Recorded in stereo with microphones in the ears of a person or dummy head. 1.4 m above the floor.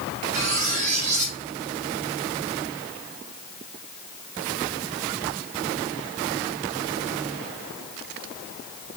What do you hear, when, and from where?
0.3 s cutlery clinking: 40° right (ahead or behind), 5.5 m